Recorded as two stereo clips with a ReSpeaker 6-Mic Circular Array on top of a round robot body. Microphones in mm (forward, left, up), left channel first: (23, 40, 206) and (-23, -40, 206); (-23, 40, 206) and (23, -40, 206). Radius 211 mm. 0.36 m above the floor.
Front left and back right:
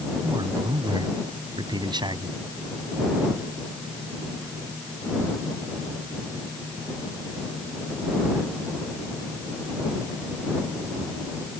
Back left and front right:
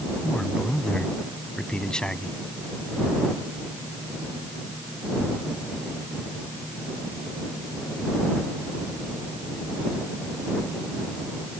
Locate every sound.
0.2 s a man speaking: 160° right